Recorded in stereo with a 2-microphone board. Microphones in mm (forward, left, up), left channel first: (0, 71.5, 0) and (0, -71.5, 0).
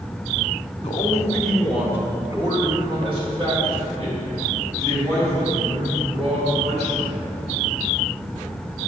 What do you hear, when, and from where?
0.8 s a man speaking: 30° left (ahead or behind), 0.9 m; by 7.2 s 50° right (ahead or behind), 4.5 m